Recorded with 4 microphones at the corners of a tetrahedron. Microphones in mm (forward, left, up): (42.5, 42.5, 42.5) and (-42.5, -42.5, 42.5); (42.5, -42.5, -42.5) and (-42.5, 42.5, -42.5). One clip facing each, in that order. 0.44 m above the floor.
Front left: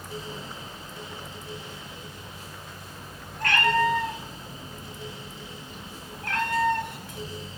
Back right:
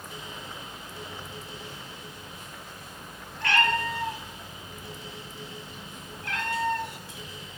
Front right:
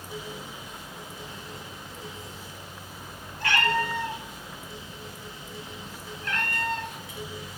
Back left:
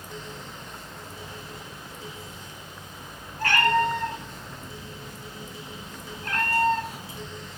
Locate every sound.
3.4 s a cat meowing: 90° left, 2.5 m; by 7.3 s 80° left, 0.6 m